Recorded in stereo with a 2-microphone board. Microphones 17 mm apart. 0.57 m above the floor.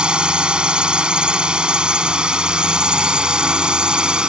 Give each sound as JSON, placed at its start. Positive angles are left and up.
{"t": 0.0, "sound": "a drone", "side_deg": -75}